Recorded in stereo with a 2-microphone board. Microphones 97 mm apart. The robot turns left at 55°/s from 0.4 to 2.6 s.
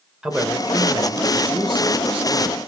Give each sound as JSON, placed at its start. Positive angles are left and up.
{"t": 0.2, "sound": "a man speaking", "azimuth_deg": -10, "distance_m": 2.0}